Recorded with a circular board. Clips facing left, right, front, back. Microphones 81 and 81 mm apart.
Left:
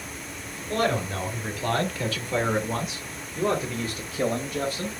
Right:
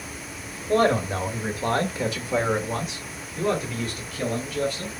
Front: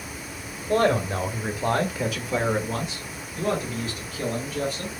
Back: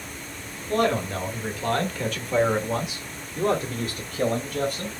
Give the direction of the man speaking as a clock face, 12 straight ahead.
2 o'clock.